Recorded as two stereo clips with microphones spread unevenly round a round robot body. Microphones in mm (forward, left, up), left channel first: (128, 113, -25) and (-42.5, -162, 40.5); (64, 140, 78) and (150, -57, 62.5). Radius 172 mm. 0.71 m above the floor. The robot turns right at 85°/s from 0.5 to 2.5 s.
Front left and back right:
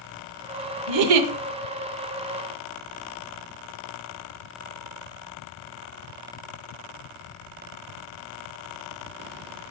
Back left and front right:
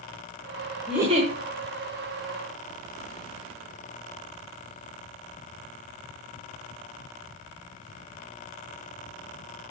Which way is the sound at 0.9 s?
160° right.